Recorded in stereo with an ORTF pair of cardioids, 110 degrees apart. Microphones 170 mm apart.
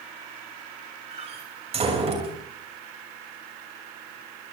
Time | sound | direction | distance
1.1 | a door slam | 35° right | 6.5 m